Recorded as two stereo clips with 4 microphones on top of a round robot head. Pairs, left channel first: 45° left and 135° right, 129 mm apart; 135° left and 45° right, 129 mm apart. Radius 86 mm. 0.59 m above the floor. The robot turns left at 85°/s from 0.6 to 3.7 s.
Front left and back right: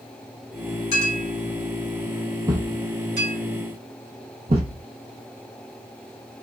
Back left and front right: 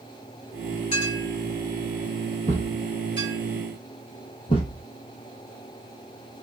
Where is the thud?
70° right, 0.7 m; by 4.8 s 175° right, 0.7 m.